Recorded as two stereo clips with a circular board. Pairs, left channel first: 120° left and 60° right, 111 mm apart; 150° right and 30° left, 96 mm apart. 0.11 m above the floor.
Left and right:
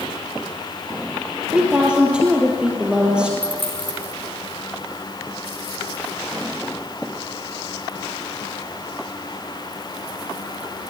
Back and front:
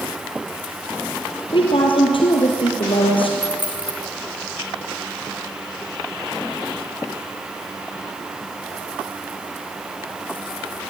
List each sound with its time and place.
1.5 s a woman speaking: 140° right, 2.5 m
3.4 s a dropped coin: 105° right, 3 m